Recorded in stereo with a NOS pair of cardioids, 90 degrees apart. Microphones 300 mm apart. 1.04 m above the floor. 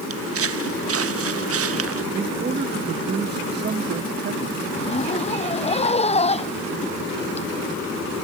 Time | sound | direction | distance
0.1 | footsteps | 50° right | ?
2.1 | a man speaking | 35° right | ?
4.7 | a zipper | 20° left | ?